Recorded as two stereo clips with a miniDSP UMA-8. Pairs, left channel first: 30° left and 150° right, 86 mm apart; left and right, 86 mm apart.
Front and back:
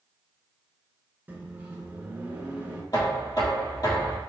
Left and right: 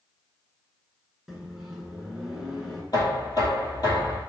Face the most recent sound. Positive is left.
turn(degrees=60)